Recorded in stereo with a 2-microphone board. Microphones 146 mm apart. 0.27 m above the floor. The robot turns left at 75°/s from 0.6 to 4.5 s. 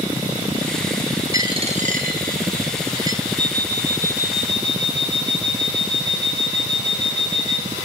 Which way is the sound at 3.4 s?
145° right.